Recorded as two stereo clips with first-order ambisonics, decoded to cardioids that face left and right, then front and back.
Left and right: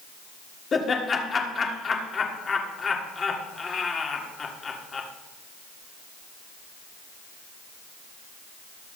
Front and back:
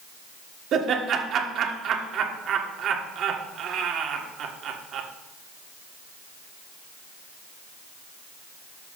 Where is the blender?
I don't hear a blender.